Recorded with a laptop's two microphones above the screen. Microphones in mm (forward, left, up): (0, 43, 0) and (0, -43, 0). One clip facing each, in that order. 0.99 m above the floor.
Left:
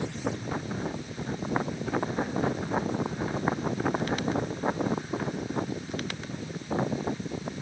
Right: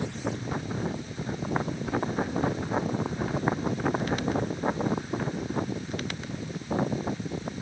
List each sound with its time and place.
Only background noise.